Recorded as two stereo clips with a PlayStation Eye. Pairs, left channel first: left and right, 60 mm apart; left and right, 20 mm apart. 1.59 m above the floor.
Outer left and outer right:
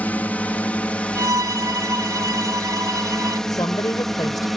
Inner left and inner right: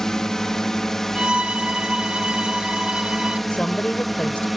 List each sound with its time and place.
0.0 s a drone: 25° left (ahead or behind); by 4.6 s centre (ahead or behind)
1.1 s a violin: 70° right (ahead or behind)
3.5 s a woman speaking: 85° left